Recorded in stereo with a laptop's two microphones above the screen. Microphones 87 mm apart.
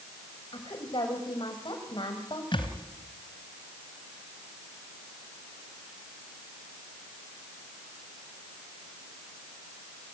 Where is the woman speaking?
70° left (ahead or behind), 6.5 m.